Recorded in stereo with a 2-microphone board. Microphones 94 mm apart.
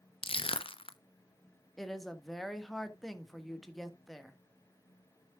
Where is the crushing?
70° left (ahead or behind), 0.7 m.